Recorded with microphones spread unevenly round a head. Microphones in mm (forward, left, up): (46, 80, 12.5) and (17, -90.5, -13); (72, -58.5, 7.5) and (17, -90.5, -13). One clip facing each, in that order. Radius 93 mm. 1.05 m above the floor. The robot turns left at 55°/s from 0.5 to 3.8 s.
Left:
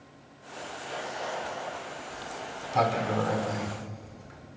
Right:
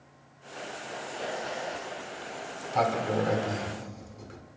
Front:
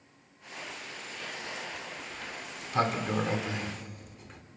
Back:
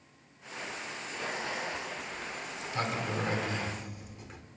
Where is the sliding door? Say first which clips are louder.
Even, back 2 dB; 30° left, 2.5 m; by 4.4 s 60° right, 2.5 m.